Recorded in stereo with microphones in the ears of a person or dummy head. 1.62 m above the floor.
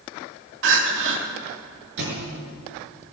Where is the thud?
65° right (ahead or behind), 7 m.